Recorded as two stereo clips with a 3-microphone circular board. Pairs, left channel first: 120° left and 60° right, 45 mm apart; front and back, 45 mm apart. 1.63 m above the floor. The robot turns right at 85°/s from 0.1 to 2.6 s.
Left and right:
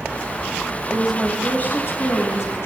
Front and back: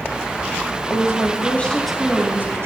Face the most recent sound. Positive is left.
turn(degrees=150)